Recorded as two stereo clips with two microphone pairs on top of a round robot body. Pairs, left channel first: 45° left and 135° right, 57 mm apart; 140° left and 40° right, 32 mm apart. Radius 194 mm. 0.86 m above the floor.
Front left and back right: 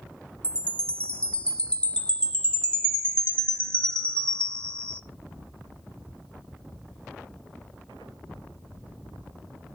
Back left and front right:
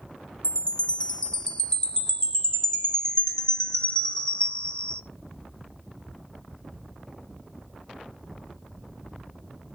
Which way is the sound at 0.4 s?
75° left.